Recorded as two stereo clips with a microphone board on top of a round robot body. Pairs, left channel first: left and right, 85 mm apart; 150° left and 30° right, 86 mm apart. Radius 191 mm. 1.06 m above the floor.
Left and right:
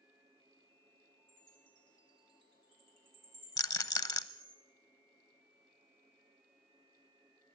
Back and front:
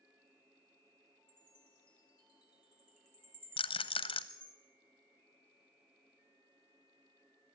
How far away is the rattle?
About 0.9 m.